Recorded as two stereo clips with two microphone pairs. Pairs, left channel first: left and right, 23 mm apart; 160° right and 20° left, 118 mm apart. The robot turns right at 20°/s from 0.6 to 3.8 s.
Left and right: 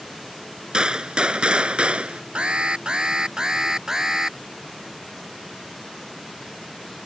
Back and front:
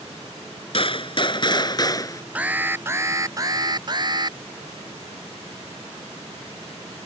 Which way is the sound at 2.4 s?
55° right.